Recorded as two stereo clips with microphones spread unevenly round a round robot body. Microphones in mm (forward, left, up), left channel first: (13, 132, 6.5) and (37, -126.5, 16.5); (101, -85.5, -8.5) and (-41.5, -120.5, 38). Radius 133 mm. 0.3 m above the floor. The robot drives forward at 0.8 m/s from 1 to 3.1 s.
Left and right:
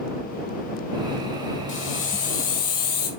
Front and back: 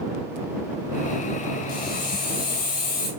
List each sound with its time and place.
1.7 s a hiss: 50° left, 4 m; by 3.1 s 65° left, 3.5 m